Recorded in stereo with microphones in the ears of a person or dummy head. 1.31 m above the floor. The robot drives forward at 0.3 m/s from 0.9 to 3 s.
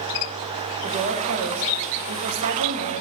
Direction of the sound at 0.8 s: 50° right (ahead or behind).